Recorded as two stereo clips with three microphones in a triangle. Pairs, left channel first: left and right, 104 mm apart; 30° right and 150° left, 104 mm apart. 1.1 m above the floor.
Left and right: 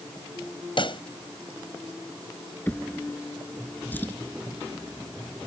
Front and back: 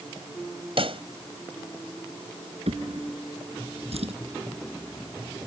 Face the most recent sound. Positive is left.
turn(degrees=160)